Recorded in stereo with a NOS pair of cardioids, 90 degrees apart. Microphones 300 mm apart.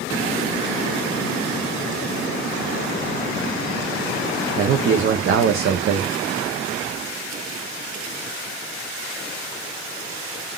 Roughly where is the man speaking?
Ahead right.